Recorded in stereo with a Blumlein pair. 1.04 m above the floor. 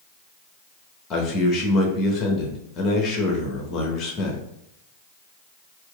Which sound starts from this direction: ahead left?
A man speaking, at 1.1 s.